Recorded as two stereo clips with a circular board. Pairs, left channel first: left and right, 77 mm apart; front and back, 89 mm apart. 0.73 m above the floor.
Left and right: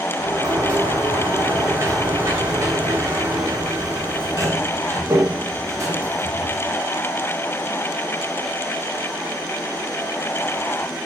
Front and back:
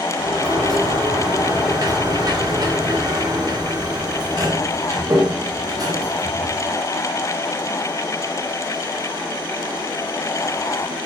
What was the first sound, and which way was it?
A sliding door, 135° right.